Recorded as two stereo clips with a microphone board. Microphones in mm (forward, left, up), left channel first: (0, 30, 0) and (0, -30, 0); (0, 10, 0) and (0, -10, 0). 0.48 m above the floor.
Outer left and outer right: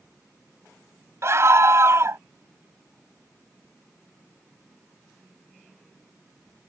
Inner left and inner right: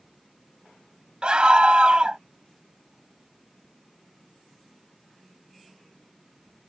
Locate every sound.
1.2 s a scream: 45° right (ahead or behind)